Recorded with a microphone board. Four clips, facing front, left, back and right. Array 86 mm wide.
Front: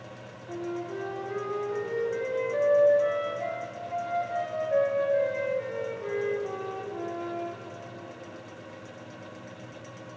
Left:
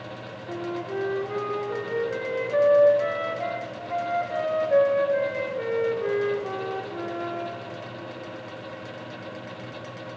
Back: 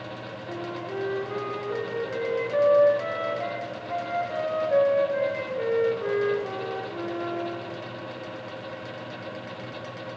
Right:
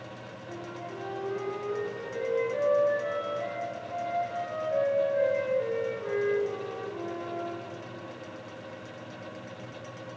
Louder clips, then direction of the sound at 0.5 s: Left 9 dB, even; 115° left.